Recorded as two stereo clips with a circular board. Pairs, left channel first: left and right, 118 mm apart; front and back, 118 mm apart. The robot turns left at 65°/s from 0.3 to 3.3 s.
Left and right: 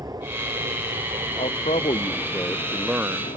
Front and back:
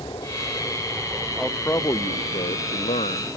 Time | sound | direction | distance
0.0 | an aircraft | 40° right | ?
1.4 | a man speaking | 90° left | ?